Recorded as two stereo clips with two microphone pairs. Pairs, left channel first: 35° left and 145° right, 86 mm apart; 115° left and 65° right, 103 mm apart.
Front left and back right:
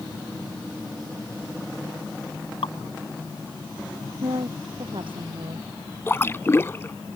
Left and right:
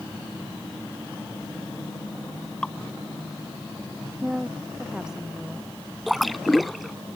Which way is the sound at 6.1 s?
30° left.